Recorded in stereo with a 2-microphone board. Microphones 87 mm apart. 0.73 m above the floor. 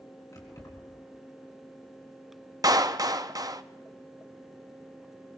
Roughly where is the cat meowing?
No cat meowing in this recording.